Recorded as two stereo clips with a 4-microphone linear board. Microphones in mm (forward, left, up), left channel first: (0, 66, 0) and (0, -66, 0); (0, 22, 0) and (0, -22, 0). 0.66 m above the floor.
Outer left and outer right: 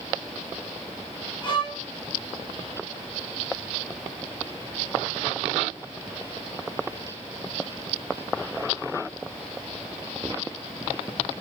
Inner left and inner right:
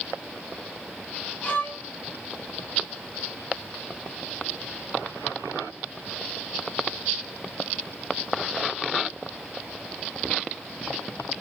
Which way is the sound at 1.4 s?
35° left (ahead or behind).